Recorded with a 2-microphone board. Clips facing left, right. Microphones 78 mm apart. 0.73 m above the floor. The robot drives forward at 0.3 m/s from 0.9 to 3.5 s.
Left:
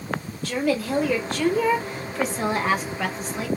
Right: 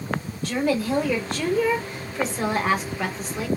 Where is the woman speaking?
5° right (ahead or behind), 1.4 m.